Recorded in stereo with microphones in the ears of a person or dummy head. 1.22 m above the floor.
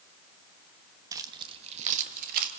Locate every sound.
1.1 s keys jangling: 20° right (ahead or behind), 1.1 m; by 2.5 s 50° right (ahead or behind), 1.4 m